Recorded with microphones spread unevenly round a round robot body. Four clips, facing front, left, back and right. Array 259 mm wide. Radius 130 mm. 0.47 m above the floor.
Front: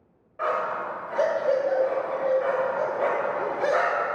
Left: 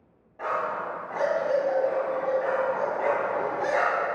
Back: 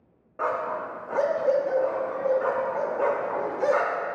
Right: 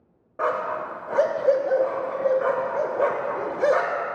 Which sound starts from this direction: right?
A dog barking, at 0.4 s.